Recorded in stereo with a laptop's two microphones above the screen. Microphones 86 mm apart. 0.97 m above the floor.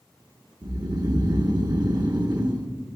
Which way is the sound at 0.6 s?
55° right (ahead or behind).